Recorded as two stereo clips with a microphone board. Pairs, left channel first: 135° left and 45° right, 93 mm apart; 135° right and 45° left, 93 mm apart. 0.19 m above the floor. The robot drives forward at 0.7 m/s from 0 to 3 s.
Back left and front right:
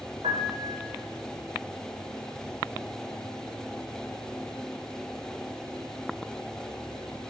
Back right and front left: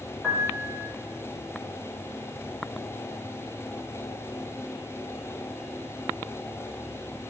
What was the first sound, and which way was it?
A piano, 35° right.